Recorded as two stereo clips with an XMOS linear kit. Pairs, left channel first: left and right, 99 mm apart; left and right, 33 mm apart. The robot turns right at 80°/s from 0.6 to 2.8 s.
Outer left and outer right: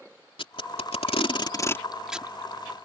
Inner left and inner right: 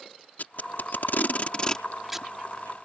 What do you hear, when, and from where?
0.4 s tape being pulled: 60° left (ahead or behind); by 2.3 s 20° right (ahead or behind)